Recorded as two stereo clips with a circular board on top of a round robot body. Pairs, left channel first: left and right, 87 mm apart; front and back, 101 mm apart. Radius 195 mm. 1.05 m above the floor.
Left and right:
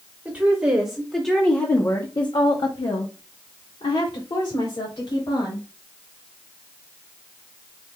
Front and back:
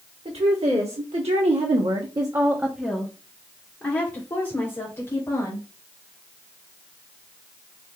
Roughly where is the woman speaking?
Behind.